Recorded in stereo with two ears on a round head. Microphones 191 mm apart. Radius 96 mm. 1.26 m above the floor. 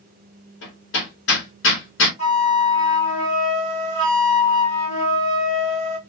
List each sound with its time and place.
0.6 s hammering: 60° left (ahead or behind), 1.5 m
2.2 s a flute: 30° left (ahead or behind), 1.6 m